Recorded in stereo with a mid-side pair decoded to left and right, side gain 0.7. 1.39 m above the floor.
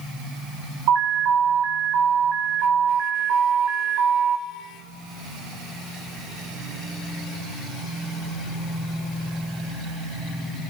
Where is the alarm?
60° right, 4 m.